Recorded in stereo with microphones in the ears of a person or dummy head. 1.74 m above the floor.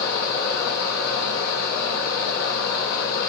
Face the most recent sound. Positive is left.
turn(degrees=65)  # may be behind; listen again after turning